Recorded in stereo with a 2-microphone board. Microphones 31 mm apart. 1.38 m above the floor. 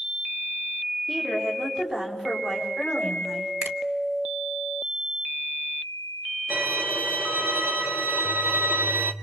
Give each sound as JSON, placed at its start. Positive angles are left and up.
{"t": 1.1, "sound": "a woman speaking", "side_deg": -35, "distance_m": 7.0}
{"t": 3.6, "sound": "a finger snap", "side_deg": -55, "distance_m": 1.3}
{"t": 6.5, "sound": "a violin", "side_deg": -85, "distance_m": 0.9}